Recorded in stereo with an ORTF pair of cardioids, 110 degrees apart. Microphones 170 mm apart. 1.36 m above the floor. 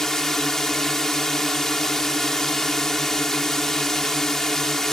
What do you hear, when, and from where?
0.0 s a drone: 5° left